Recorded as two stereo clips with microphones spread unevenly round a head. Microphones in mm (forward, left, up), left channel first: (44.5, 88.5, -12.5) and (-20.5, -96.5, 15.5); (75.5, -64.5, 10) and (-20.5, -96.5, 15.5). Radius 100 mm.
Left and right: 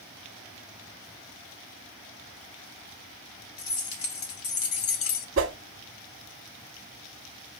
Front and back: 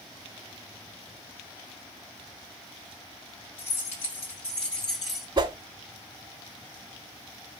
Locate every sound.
3.6 s keys jangling: 55° left, 2 m; by 5.3 s 100° left, 0.7 m
5.4 s a whoosh: 125° right, 0.8 m